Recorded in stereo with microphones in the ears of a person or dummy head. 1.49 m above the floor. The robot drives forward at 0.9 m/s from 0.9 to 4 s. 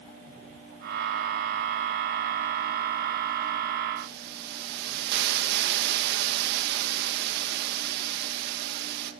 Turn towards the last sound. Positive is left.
turn(degrees=-55)  # may be behind; listen again after turning